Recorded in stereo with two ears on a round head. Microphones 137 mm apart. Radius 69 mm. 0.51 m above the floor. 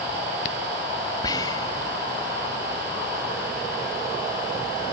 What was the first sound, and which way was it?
Whispering, 25° left (ahead or behind).